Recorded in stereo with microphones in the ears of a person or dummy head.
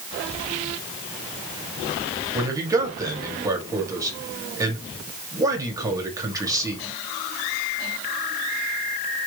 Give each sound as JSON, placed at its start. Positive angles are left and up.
{"t": 2.3, "sound": "a man speaking", "side_deg": -20, "distance_m": 1.1}